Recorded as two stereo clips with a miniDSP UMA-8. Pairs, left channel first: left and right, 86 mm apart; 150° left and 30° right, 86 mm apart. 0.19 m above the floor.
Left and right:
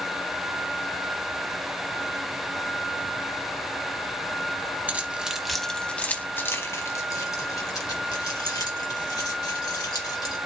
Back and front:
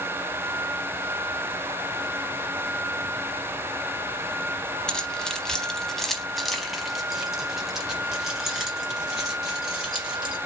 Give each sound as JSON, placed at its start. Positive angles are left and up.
{"t": 4.9, "sound": "keys jangling", "azimuth_deg": -140, "distance_m": 1.0}